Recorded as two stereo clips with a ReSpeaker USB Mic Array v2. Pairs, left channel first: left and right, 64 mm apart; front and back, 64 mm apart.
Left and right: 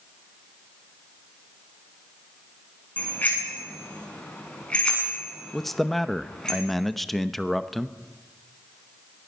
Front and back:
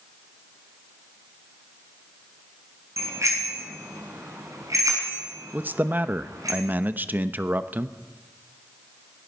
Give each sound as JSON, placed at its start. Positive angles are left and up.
{"t": 3.0, "sound": "a bicycle bell", "azimuth_deg": 150, "distance_m": 6.5}
{"t": 5.5, "sound": "a man speaking", "azimuth_deg": 170, "distance_m": 0.8}